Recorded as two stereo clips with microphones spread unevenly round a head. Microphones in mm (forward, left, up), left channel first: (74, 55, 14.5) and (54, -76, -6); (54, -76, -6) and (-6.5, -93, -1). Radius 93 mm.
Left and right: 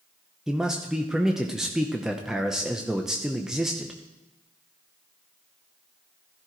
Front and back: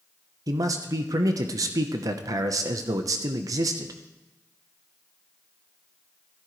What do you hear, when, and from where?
0.5 s a man speaking: straight behind, 0.8 m